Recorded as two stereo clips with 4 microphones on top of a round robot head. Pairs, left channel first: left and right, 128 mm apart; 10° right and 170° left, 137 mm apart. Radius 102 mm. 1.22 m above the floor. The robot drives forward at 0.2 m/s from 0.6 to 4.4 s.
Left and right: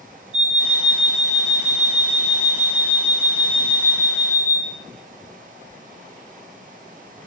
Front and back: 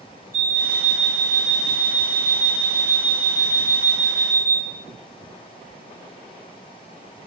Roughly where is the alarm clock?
Behind right.